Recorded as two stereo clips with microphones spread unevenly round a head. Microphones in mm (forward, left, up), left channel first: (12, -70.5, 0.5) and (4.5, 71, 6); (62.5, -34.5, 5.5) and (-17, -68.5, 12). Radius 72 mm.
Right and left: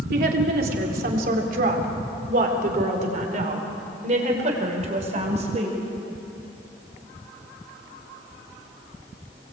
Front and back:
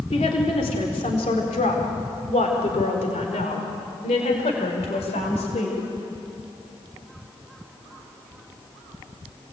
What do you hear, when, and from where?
0.1 s a woman speaking: 70° left, 4 m; by 5.8 s 45° left, 6.5 m